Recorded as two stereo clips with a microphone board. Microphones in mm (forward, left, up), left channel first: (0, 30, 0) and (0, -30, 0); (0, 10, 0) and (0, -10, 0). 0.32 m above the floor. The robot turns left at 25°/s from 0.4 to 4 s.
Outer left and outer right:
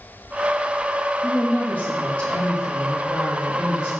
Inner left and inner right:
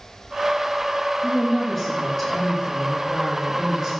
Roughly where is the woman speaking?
Ahead left.